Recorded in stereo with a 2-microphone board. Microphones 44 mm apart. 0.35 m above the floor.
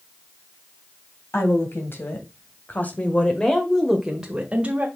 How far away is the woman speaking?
About 3 m.